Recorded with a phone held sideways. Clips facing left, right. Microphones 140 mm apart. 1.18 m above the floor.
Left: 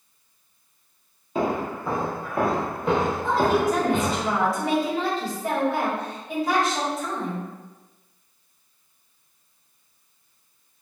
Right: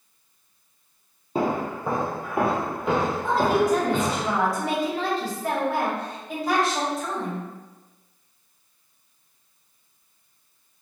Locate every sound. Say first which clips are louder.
1.4 s footsteps: even; 35° right (ahead or behind), 1.4 m; by 4.2 s 20° left (ahead or behind), 1.7 m
3.2 s a woman speaking: right 1 dB; centre (ahead or behind), 1.5 m